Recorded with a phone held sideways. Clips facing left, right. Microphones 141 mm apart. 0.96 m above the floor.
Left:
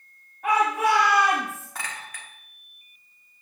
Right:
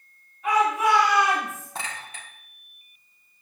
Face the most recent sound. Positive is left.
turn(degrees=-25)  # may be behind; listen again after turning